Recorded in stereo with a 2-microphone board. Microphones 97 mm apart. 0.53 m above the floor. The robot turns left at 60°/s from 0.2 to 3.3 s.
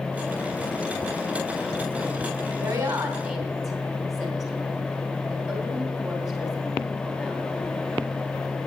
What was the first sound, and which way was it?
A woman speaking, 55° right (ahead or behind).